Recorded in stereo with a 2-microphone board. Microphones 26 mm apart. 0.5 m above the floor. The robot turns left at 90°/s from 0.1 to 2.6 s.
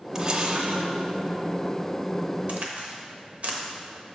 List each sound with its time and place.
0.1 s a camera shutter: 30° right, 0.6 m; by 0.9 s 100° right, 0.6 m
2.5 s a crack: 60° right (ahead or behind), 0.8 m; by 3.6 s 65° right (ahead or behind), 0.8 m